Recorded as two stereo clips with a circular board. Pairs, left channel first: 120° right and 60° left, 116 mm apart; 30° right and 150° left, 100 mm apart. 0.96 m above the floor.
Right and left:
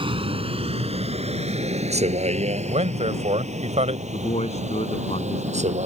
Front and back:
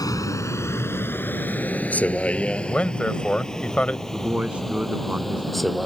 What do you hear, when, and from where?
0.0 s a vehicle: 20° left; by 5.9 s 60° left
2.7 s a man speaking: 50° left
4.1 s a man speaking: 130° right